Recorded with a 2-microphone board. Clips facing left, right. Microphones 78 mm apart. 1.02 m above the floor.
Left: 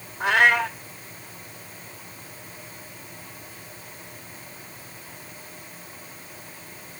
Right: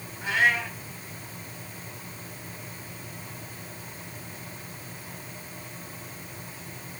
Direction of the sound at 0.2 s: 70° left (ahead or behind).